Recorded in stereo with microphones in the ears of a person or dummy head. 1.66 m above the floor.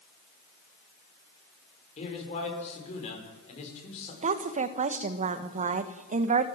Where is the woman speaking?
45° right (ahead or behind), 1.5 m.